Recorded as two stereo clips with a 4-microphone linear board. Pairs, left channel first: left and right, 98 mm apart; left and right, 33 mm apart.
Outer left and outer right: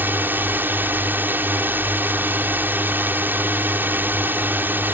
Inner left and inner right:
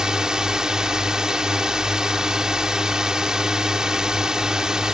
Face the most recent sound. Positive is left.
turn(degrees=-20)  # may be behind; listen again after turning